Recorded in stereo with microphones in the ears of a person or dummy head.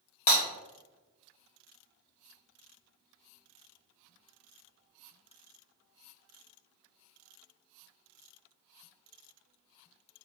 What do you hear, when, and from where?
0.3 s breaking glass: 40° left (ahead or behind), 1.2 m